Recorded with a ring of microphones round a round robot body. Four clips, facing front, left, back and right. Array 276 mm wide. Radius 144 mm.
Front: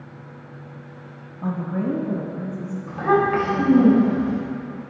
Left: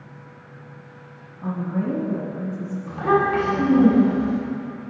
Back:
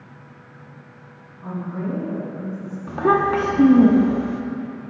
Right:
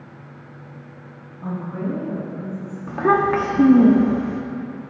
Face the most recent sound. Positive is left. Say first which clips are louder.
# right 2 dB, back 1 dB
turn(degrees=-135)